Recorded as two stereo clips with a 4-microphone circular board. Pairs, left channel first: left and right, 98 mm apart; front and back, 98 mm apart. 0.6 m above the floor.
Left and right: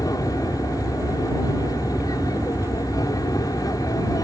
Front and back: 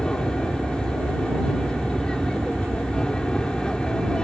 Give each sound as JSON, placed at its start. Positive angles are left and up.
{"t": 0.0, "sound": "an aircraft", "azimuth_deg": 75}